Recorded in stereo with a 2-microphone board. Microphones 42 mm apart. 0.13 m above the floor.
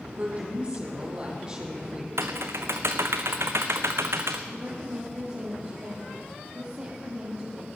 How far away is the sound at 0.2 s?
About 5.5 m.